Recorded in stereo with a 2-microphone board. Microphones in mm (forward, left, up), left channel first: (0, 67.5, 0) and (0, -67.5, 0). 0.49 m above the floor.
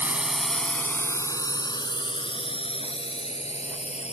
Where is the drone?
10° right (ahead or behind); by 4.1 s 55° left (ahead or behind).